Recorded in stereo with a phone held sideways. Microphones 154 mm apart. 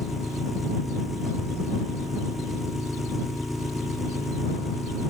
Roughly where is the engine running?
Centre.